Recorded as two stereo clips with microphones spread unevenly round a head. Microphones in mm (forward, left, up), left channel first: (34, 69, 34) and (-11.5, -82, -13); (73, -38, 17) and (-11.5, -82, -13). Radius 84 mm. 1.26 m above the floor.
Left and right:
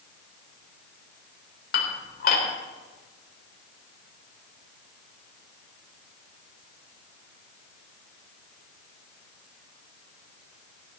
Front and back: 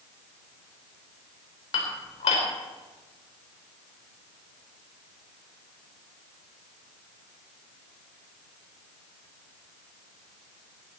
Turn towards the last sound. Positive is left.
turn(degrees=45)